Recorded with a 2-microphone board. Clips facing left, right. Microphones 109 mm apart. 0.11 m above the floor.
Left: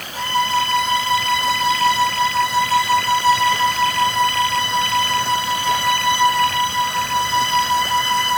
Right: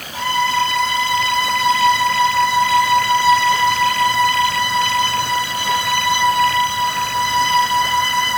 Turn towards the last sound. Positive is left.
turn(degrees=-10)  # may be behind; listen again after turning